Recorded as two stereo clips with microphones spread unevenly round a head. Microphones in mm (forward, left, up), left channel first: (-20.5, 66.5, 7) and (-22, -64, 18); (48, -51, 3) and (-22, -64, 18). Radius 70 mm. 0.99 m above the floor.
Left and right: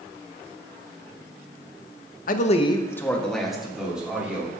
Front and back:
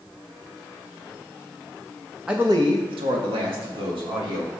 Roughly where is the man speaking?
Left.